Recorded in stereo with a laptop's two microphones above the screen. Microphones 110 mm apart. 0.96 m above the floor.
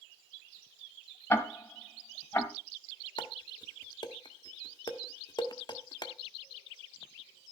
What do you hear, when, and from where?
1.3 s ticking: 20° left (ahead or behind), 1.5 m
3.2 s dishes clattering: 40° left (ahead or behind), 1.0 m